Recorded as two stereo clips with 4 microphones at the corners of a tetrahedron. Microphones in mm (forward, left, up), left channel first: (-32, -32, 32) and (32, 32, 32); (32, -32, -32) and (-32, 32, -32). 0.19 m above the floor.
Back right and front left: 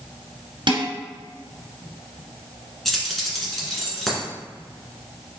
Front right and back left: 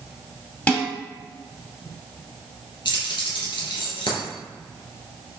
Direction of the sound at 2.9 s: 50° right.